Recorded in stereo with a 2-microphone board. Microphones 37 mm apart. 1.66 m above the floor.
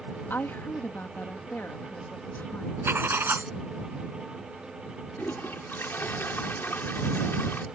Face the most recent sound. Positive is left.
turn(degrees=70)  # may be behind; listen again after turning